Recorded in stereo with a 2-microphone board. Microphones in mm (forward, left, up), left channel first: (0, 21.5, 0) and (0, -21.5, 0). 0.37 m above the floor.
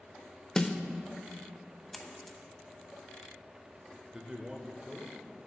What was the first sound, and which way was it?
A snare drum, 15° left (ahead or behind).